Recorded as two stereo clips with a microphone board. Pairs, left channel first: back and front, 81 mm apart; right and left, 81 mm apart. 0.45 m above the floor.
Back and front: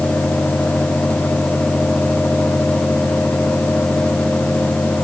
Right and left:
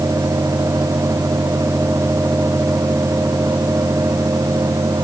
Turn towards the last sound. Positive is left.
No sound to turn to.